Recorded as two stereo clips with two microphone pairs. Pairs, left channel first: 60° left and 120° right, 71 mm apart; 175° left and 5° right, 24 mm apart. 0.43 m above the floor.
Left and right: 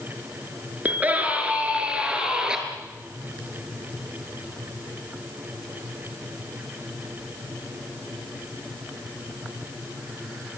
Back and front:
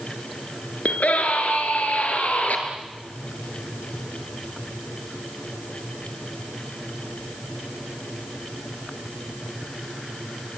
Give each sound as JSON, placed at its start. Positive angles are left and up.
{"t": 0.8, "sound": "a scream", "azimuth_deg": 175, "distance_m": 5.5}